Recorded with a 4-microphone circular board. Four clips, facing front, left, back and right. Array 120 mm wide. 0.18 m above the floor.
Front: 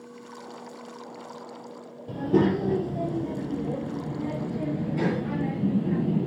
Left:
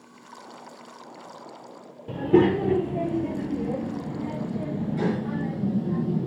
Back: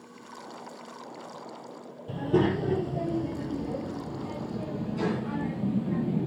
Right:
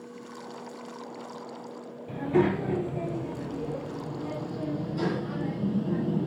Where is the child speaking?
75° left, 2.5 m; by 6.3 s 20° left, 2.5 m.